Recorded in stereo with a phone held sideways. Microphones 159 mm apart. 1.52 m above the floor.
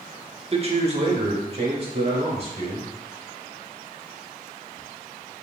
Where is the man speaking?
40° right (ahead or behind), 0.6 m.